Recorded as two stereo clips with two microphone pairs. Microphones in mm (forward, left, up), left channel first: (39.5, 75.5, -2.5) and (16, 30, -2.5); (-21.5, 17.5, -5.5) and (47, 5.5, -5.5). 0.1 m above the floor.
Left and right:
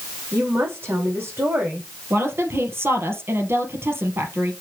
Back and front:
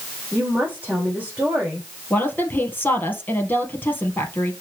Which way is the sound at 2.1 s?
130° right.